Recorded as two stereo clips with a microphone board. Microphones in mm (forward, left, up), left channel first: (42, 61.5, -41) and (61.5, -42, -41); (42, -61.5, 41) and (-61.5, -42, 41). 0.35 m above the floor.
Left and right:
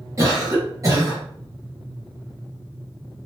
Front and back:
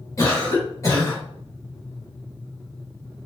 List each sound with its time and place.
0.2 s a cough: 50° right, 1.8 m